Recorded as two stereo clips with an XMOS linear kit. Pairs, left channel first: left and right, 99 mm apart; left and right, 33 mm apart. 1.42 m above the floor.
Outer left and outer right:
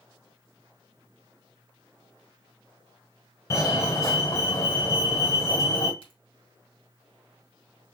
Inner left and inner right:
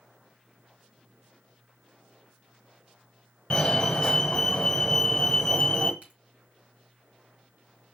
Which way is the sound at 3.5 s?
30° left (ahead or behind).